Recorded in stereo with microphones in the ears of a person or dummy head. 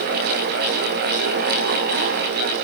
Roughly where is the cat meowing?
I don't hear a cat meowing.